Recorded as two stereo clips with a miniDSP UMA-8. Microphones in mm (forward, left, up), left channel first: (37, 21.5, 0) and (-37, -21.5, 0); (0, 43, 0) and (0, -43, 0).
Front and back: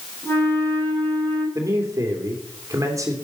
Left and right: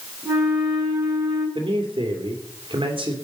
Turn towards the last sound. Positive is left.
turn(degrees=-100)